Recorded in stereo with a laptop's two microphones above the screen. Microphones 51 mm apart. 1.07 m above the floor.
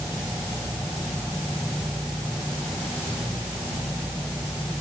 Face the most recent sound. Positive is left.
No sound to turn to.